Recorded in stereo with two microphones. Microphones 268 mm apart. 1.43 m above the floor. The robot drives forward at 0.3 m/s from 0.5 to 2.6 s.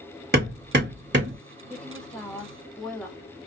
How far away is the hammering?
About 1.2 m.